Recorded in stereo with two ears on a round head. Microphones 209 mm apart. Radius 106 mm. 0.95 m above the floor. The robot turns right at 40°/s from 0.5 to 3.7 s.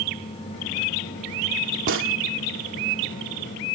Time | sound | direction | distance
1.9 | a gunshot | 60° right (ahead or behind) | ?